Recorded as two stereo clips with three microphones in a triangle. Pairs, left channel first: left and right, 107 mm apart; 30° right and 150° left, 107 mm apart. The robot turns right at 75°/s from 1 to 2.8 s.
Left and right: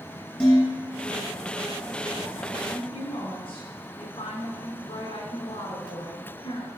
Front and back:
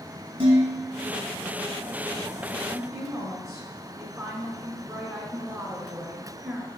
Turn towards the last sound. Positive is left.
turn(degrees=90)